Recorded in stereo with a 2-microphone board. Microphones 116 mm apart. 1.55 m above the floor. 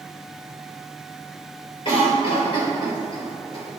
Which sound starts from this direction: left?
A cough, at 1.9 s.